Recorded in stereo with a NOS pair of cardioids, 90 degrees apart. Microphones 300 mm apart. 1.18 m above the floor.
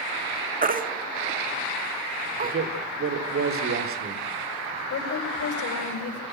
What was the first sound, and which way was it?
A baby crying, 30° right.